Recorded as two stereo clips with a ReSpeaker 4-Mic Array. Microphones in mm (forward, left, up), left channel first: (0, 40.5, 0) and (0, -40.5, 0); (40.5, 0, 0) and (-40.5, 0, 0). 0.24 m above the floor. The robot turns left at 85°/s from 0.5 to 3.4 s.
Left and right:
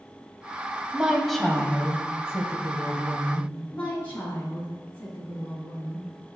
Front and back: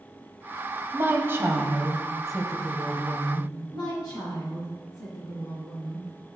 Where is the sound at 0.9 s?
150° right, 1.0 m; by 3.5 s straight ahead, 1.0 m.